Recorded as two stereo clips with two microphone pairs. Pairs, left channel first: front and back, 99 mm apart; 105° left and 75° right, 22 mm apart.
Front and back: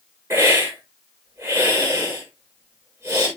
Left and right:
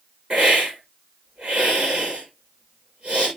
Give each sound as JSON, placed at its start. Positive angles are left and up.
{"t": 0.3, "sound": "a hiss", "azimuth_deg": -120, "distance_m": 8.5}